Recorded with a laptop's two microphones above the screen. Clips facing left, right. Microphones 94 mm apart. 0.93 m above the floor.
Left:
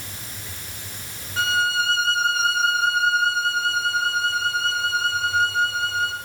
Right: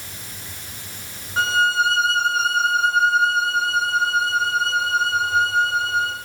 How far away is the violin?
About 1.4 m.